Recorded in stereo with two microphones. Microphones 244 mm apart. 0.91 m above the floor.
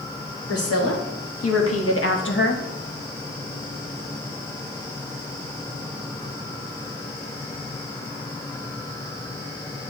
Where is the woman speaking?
75° left (ahead or behind), 2.5 m; by 2.6 s 40° left (ahead or behind), 1.2 m.